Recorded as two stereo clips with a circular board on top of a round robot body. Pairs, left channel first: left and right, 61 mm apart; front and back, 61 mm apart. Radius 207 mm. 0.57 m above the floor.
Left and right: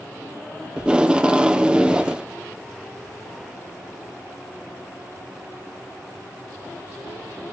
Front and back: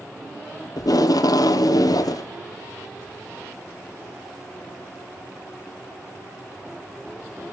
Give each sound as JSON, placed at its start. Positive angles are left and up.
{"t": 0.8, "sound": "tape being pulled", "azimuth_deg": -15, "distance_m": 0.8}